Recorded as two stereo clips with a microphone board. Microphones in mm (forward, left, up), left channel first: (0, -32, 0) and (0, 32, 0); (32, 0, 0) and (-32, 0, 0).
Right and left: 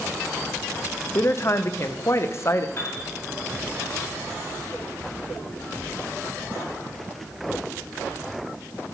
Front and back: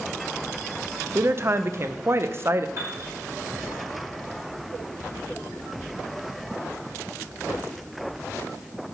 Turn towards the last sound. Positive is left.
turn(degrees=-140)